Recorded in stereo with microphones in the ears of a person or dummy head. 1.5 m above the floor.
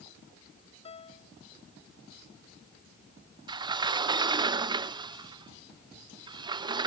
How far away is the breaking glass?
No breaking glass in this recording.